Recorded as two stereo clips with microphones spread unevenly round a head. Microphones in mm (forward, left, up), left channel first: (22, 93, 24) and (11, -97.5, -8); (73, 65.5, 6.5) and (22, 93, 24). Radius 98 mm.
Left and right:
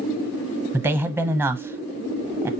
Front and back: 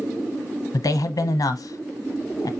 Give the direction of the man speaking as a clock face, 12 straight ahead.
12 o'clock.